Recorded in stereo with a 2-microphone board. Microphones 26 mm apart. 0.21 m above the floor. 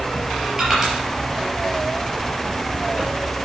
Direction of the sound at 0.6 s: 20° right (ahead or behind).